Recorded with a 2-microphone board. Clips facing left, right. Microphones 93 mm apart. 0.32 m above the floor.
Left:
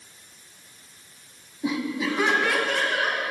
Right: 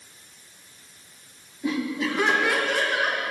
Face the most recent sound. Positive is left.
turn(degrees=-10)  # may be behind; listen again after turning